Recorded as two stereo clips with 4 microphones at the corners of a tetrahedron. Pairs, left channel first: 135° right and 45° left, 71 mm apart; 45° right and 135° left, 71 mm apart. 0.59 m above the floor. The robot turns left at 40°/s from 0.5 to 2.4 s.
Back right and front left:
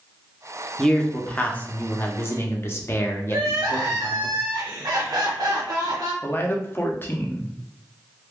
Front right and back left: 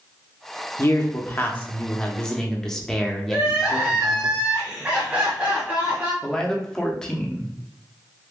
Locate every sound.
0.8 s a man speaking: 55° right, 0.7 m; by 4.3 s 120° right, 0.7 m
3.3 s crying: 65° left, 1.4 m
6.2 s a man speaking: 115° right, 0.6 m